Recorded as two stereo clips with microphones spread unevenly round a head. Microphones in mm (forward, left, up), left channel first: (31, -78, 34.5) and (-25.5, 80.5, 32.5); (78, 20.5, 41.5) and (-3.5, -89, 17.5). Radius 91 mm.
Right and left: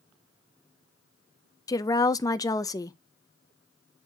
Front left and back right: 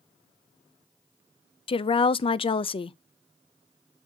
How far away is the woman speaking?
About 0.5 m.